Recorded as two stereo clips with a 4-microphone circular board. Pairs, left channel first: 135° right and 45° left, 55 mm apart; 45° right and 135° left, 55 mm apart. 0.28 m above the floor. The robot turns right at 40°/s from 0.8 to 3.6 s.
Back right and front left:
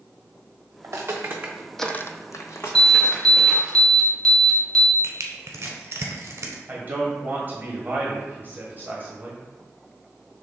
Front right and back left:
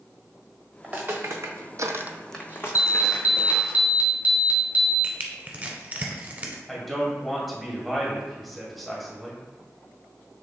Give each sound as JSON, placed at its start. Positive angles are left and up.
{"t": 0.8, "sound": "footsteps", "azimuth_deg": 65, "distance_m": 1.5}
{"t": 2.8, "sound": "an alarm", "azimuth_deg": 130, "distance_m": 1.3}
{"t": 5.0, "sound": "crushing", "azimuth_deg": 80, "distance_m": 0.9}
{"t": 6.7, "sound": "a man speaking", "azimuth_deg": 45, "distance_m": 1.6}